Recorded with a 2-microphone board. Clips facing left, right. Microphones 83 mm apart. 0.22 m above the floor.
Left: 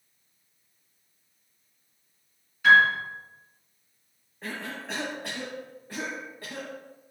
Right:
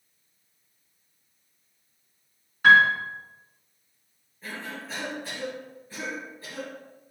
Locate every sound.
2.6 s a piano: 50° right (ahead or behind), 2.5 m
4.4 s a cough: 65° left (ahead or behind), 3 m